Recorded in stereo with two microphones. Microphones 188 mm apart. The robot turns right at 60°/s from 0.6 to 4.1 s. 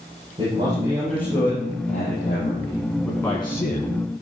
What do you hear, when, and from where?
0.4 s a man speaking: 30° right, 9.5 m; by 2.8 s 105° left, 9.5 m
3.0 s a man speaking: straight ahead, 3 m; by 4.0 s 60° left, 3 m